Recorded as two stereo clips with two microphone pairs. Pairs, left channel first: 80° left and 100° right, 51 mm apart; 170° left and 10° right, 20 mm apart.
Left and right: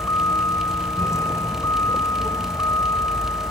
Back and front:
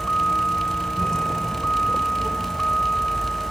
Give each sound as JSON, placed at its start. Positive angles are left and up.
{"t": 0.0, "sound": "a vehicle", "azimuth_deg": 110}